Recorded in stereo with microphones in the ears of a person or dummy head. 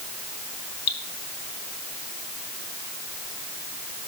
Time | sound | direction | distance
0.9 | dripping | 50° left (ahead or behind) | 4.5 m